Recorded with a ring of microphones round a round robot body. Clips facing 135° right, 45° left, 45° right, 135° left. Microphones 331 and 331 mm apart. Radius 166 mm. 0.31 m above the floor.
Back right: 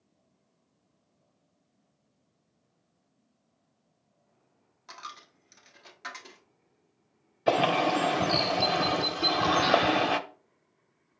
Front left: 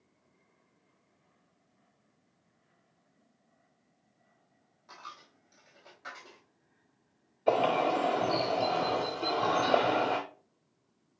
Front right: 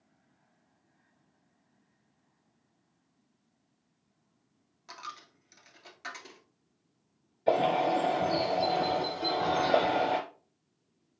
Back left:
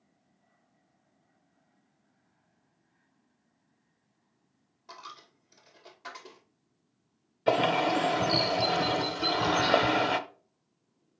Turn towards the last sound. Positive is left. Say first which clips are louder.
# back right 2 dB, back left 1 dB
turn(degrees=-175)